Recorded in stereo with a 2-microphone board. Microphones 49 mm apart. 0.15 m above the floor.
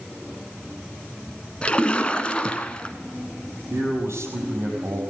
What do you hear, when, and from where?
1.6 s a splash: 25° left (ahead or behind), 1.3 m
3.7 s a man speaking: 65° right (ahead or behind), 6 m